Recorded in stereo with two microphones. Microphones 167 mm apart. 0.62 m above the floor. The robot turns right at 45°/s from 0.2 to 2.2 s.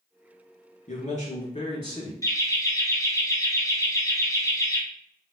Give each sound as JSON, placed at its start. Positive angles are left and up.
{"t": 0.9, "sound": "a man speaking", "azimuth_deg": 95, "distance_m": 1.5}
{"t": 2.2, "sound": "laughter", "side_deg": 20, "distance_m": 0.6}